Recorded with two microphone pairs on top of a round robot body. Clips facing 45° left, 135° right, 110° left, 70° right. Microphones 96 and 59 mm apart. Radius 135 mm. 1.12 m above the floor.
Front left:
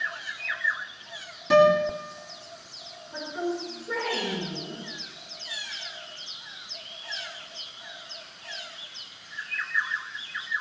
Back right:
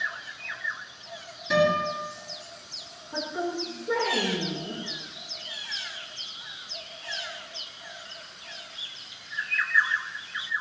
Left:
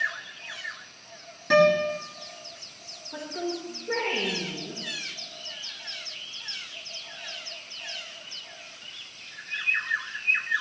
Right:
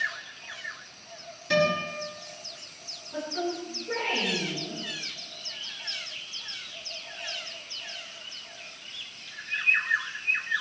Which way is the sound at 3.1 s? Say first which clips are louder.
Even, right 1 dB; 165° left.